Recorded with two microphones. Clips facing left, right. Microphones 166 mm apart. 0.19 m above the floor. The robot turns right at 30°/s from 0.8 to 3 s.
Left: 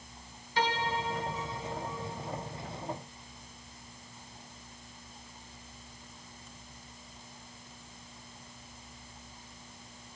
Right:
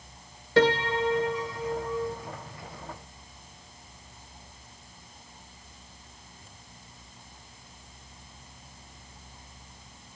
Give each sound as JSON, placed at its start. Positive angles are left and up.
{"t": 0.6, "sound": "a piano", "azimuth_deg": -100, "distance_m": 0.6}